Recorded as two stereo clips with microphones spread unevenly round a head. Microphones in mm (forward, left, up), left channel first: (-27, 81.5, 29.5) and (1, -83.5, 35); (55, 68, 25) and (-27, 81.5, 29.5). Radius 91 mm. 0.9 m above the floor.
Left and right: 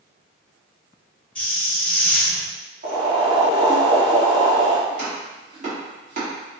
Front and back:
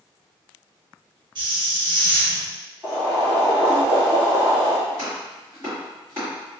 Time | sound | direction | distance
1.4 | a hiss | straight behind | 0.8 m
2.8 | boiling | 120° right | 1.7 m
4.9 | chopping | 125° right | 1.6 m